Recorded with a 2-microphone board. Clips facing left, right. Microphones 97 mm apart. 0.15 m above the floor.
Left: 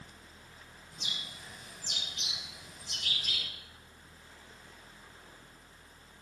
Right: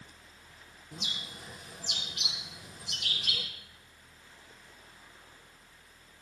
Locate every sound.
0.9 s a bird: 75° right (ahead or behind), 6 m